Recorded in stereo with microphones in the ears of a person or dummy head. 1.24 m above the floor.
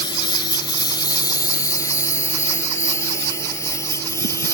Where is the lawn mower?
25° left (ahead or behind); by 4.5 s 15° left (ahead or behind).